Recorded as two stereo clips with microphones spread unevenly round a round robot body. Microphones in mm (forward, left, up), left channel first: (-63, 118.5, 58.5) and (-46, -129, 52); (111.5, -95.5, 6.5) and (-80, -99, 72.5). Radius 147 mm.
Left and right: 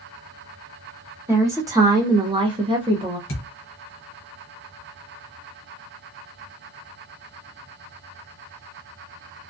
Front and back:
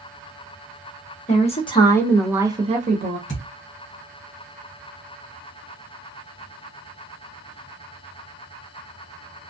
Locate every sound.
1.3 s a woman speaking: 10° right, 1.1 m; by 3.2 s 145° right, 0.9 m
3.3 s a thud: 45° left, 0.9 m